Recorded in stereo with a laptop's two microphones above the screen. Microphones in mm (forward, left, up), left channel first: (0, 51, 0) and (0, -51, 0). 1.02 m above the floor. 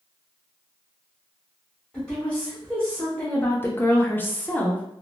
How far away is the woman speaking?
About 1.1 m.